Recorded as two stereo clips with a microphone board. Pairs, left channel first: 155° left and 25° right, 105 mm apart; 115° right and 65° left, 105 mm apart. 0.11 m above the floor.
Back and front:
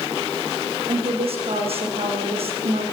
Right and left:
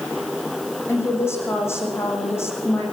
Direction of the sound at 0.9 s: 45° right.